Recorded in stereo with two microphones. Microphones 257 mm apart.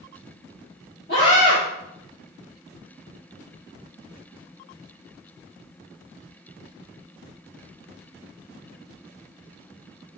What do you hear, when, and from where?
1.1 s a scream: 50° left (ahead or behind), 3.5 m